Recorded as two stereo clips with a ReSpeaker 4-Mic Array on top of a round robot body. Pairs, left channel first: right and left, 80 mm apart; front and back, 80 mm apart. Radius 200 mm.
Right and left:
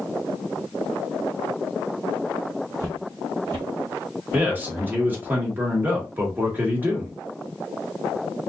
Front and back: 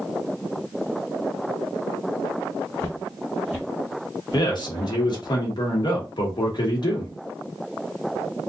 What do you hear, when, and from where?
2.8 s footsteps: 30° left, 0.9 m; by 5.0 s 145° right, 1.6 m
4.3 s a man speaking: 25° left, 1.8 m